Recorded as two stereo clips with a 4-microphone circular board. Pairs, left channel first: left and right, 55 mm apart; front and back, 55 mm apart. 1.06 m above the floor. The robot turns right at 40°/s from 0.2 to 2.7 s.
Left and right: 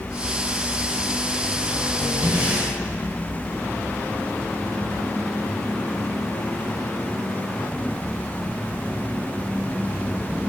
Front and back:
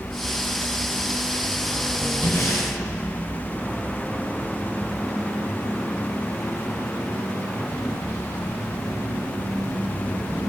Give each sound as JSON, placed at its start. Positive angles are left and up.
{"t": 2.2, "sound": "breathing", "azimuth_deg": -35, "distance_m": 4.0}